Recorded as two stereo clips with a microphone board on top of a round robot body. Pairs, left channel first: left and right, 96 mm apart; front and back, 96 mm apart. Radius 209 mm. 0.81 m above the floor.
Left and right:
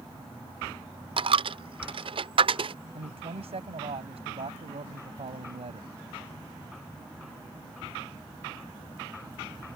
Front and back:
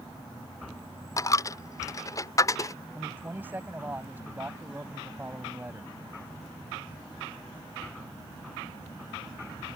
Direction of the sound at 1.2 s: 60° right.